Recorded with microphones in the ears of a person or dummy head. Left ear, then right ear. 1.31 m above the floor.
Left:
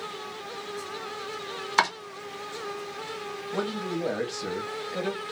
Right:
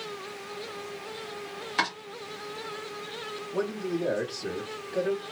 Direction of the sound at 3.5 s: 30° left (ahead or behind).